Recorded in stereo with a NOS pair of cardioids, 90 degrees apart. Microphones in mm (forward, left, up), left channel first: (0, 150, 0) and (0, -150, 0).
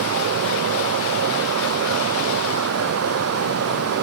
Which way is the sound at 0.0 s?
55° right.